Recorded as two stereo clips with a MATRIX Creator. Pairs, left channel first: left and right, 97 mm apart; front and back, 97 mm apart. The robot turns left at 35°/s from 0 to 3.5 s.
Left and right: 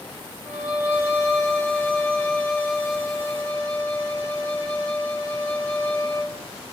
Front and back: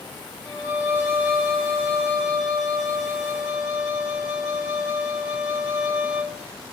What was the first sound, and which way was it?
A violin, 150° right.